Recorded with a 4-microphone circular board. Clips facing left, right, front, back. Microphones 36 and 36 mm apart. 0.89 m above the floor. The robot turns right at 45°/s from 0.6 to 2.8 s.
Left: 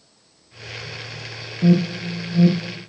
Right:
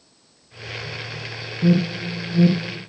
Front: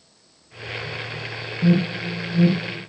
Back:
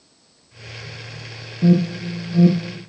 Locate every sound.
1.6 s an alarm: 130° left, 1.2 m; by 2.8 s straight behind, 1.2 m